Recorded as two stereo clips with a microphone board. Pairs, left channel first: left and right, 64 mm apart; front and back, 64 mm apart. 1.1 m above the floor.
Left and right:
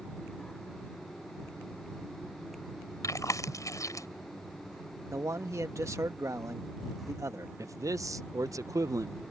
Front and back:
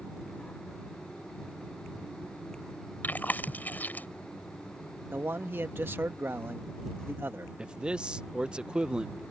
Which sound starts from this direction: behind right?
A man speaking, at 5.1 s.